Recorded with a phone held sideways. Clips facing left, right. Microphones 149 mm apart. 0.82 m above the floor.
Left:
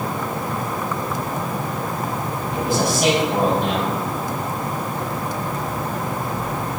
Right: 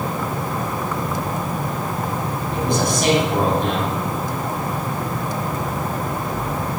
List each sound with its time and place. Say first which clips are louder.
2.5 s a man speaking: even; 5° left (ahead or behind), 6 m